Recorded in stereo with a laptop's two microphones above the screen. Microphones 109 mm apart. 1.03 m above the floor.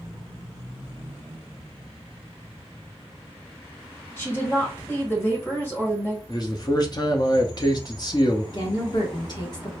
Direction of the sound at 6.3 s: 40° left (ahead or behind).